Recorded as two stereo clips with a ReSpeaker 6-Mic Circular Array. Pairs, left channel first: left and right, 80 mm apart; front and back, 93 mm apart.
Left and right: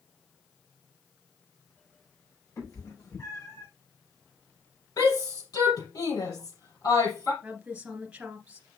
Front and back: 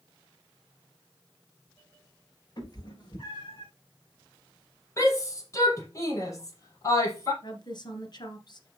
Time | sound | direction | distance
2.6 | a cat meowing | 40° left | 5 m
5.0 | a shout | 55° left | 5 m
7.4 | a woman speaking | 15° right | 2.0 m